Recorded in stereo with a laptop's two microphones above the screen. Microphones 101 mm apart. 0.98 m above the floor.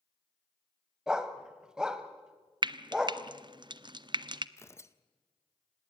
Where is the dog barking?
10° right (ahead or behind), 1.7 m.